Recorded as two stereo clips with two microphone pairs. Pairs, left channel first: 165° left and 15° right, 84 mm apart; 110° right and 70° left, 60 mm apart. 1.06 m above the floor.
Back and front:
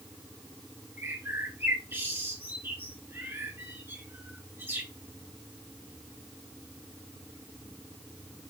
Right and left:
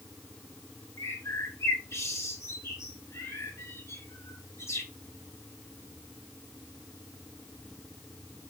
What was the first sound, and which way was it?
A bird, 75° right.